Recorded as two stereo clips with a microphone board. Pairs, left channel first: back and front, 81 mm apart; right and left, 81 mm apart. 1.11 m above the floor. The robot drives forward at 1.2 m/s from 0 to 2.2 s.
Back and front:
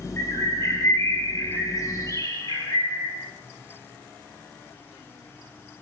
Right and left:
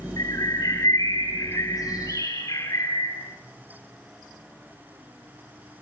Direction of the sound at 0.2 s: 125° right.